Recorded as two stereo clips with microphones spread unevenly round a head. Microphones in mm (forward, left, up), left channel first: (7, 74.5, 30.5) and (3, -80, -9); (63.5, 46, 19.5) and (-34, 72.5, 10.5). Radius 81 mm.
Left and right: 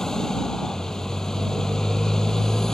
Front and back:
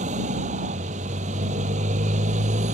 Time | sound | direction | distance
0.0 | a motorcycle | 175° left | ?